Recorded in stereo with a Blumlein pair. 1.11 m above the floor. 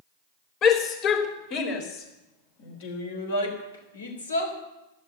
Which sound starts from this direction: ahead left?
A shout, at 0.6 s.